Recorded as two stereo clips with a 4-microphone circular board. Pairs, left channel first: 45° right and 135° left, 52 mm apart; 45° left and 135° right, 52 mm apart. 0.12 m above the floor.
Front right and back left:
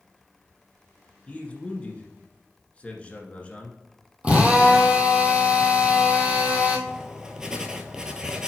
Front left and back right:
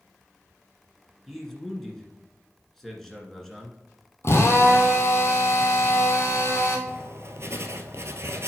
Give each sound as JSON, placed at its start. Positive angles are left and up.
{"t": 1.3, "sound": "a man speaking", "azimuth_deg": -35, "distance_m": 1.5}
{"t": 4.2, "sound": "a drill", "azimuth_deg": 70, "distance_m": 1.4}
{"t": 6.9, "sound": "writing", "azimuth_deg": -150, "distance_m": 0.7}